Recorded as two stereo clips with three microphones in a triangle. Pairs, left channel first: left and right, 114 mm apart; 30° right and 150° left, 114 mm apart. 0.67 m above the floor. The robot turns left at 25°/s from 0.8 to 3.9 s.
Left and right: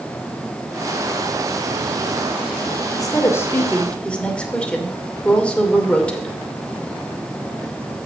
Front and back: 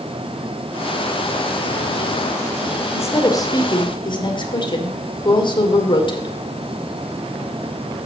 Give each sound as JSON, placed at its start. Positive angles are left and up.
{"t": 2.9, "sound": "a woman speaking", "azimuth_deg": 35, "distance_m": 2.5}